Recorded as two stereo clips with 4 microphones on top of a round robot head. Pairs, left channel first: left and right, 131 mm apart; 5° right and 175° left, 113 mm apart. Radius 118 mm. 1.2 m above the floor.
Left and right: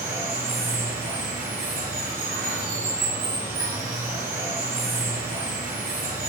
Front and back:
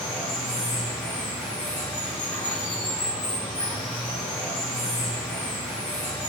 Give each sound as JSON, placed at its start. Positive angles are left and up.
{"t": 0.0, "sound": "running water", "azimuth_deg": -60, "distance_m": 1.9}